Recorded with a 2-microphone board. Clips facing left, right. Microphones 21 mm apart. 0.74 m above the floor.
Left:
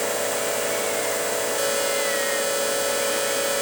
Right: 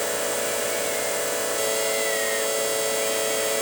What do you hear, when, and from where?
Only background noise.